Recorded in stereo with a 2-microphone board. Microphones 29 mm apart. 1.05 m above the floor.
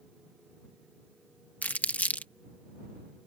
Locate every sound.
1.6 s crumpling: 65° left (ahead or behind)